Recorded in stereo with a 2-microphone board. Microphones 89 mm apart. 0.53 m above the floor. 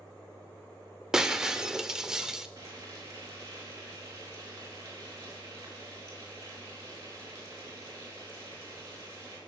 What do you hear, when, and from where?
1.1 s breaking glass: 5° right (ahead or behind), 0.7 m
2.6 s frying: 35° right (ahead or behind), 4.5 m